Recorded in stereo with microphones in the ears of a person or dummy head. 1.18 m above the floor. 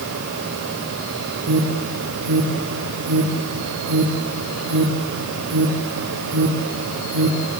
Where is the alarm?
85° right, 2.5 m.